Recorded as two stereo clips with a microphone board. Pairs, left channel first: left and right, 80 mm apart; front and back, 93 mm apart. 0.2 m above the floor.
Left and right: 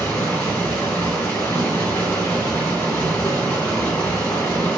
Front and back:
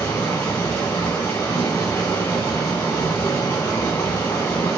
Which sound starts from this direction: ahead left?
Running water, at 0.0 s.